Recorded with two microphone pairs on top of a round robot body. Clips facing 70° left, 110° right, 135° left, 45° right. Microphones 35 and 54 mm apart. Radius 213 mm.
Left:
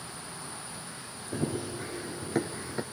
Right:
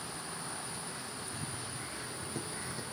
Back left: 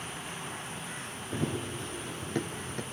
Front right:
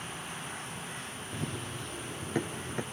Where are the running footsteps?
75° left; by 2.8 s 25° left.